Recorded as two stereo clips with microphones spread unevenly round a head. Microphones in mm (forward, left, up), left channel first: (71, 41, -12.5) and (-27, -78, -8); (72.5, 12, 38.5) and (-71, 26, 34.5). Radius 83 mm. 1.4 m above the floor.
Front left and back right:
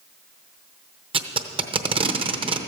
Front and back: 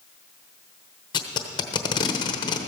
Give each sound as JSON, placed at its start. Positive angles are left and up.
{"t": 1.1, "sound": "tape being pulled", "azimuth_deg": -70, "distance_m": 0.8}